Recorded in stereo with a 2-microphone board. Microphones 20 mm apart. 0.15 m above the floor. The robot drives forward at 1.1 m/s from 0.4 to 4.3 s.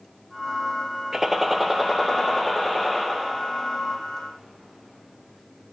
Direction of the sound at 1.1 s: 25° right (ahead or behind).